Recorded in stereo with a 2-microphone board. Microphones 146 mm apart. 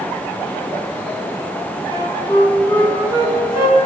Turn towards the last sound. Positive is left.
turn(degrees=35)  # may be behind; listen again after turning